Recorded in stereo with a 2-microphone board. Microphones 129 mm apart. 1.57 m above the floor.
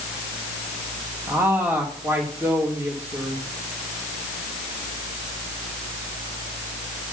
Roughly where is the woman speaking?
Right.